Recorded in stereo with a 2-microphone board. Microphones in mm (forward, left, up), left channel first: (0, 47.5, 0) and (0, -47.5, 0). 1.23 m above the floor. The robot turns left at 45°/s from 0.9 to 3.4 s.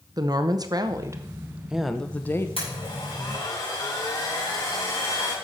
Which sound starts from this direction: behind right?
A woman speaking, at 0.2 s.